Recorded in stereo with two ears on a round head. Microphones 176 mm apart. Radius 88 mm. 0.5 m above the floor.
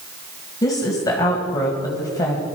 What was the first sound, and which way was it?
A woman speaking, 20° left (ahead or behind).